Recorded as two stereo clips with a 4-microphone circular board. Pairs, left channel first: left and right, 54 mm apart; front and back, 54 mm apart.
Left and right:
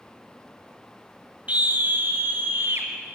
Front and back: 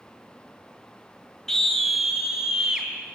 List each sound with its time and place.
1.5 s a scream: 75° right, 1.3 m; by 2.9 s 110° right, 2 m